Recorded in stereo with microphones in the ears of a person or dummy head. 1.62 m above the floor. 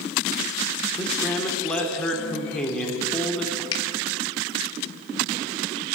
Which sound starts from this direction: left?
A finger snap, at 3.7 s.